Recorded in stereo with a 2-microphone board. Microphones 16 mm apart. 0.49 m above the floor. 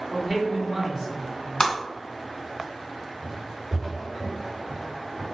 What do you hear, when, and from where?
0.1 s a man speaking: 15° right (ahead or behind), 1.8 m
1.6 s breaking glass: 35° left (ahead or behind), 1.4 m
3.2 s footsteps: 40° left (ahead or behind), 1.5 m; by 5.2 s 10° right (ahead or behind), 3 m